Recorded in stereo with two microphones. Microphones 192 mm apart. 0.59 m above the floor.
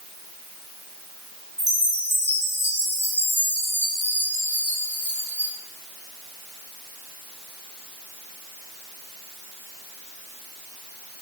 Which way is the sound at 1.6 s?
65° right (ahead or behind).